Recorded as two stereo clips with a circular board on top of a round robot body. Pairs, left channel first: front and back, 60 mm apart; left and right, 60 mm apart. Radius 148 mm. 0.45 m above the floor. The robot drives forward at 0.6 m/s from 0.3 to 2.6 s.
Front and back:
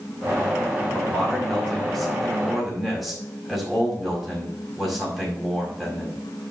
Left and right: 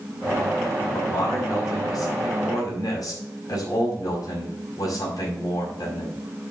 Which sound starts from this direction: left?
A man speaking, at 0.9 s.